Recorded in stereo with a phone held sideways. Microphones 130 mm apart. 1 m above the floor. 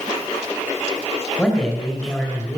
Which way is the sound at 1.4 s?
5° left (ahead or behind).